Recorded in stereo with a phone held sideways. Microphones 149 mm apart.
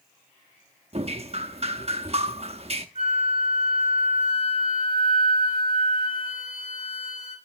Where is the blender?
I don't hear a blender.